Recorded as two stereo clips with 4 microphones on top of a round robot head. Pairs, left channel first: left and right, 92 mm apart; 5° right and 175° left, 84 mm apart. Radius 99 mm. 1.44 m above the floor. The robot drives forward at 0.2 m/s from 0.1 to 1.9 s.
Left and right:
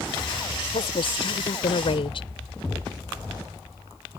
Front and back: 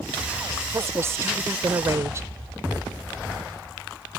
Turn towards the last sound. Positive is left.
turn(degrees=120)